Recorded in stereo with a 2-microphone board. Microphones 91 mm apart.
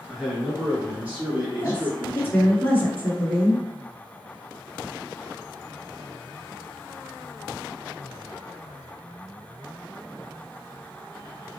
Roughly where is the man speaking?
Centre.